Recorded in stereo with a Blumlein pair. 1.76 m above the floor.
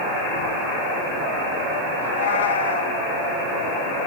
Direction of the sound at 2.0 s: 65° left.